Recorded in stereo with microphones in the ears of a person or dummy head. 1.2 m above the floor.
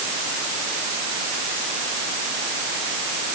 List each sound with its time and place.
Only background noise.